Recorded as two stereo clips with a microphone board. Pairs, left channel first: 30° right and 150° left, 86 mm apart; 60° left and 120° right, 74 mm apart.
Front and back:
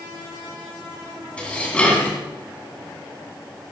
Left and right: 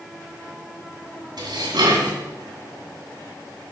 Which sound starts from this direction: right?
Dishes clattering, at 1.4 s.